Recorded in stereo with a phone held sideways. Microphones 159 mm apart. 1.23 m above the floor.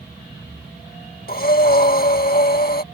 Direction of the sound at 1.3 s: 65° left (ahead or behind).